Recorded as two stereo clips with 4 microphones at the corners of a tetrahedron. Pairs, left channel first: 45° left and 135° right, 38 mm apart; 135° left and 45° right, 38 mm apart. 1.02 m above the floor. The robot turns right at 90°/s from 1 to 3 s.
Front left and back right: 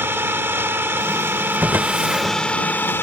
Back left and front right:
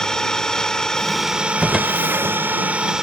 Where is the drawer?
135° right; by 2.4 s 65° right.